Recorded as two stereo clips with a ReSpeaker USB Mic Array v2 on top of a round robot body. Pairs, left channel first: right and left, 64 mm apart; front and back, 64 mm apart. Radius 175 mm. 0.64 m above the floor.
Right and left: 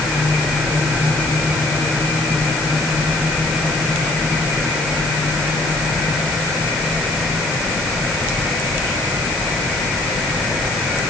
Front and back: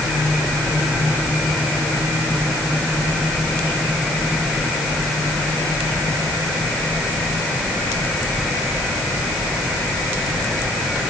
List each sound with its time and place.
Only background noise.